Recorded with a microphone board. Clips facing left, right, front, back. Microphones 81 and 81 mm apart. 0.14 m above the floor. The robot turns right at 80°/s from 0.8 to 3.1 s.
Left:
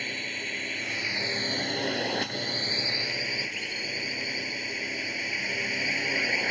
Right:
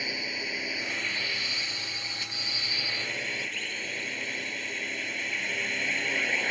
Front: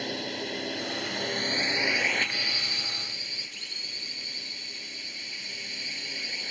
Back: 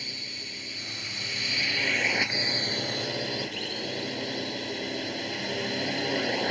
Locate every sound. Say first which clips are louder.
0.0 s a drone: even, front 10 dB; 10° right; by 6.5 s 175° left